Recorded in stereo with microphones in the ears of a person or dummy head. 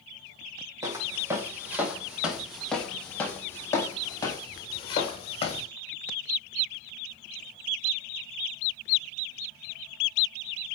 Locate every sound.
0.8 s footsteps: 15° right (ahead or behind), 3.5 m; by 5.7 s 35° left (ahead or behind), 4 m